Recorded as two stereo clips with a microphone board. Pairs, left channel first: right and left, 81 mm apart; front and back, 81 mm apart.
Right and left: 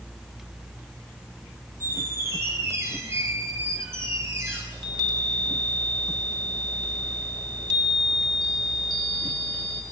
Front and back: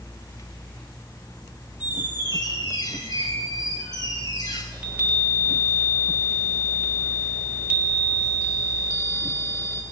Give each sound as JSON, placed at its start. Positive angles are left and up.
{"t": 1.8, "sound": "a squeak", "azimuth_deg": 35, "distance_m": 8.0}
{"t": 4.7, "sound": "a chime", "azimuth_deg": 110, "distance_m": 3.5}